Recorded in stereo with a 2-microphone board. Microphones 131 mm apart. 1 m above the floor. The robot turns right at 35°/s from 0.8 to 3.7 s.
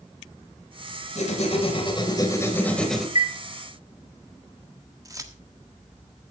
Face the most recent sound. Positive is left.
turn(degrees=-25)  # may be behind; listen again after turning